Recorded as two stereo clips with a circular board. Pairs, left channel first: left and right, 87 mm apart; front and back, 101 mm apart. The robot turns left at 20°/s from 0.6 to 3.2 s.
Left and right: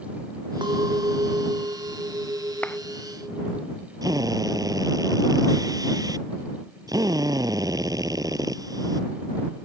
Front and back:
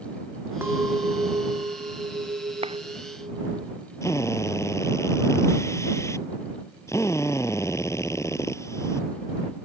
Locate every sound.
0.6 s a clink: 110° right; by 3.6 s 165° right
2.6 s a clap: 165° left; by 2.8 s 160° left
4.0 s a drill: 55° right